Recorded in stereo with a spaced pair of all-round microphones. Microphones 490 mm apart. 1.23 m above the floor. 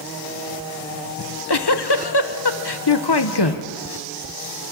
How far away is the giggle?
About 1.0 m.